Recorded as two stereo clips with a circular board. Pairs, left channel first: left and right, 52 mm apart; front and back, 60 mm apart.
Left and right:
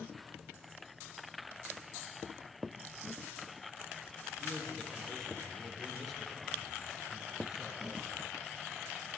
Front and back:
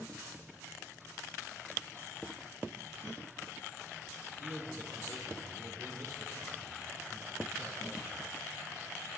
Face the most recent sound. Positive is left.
turn(degrees=-160)